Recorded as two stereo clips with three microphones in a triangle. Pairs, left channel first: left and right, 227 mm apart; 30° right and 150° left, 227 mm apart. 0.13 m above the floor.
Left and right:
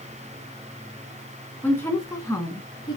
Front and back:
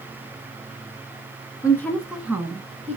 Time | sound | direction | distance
1.6 | a woman speaking | 20° left | 1.2 m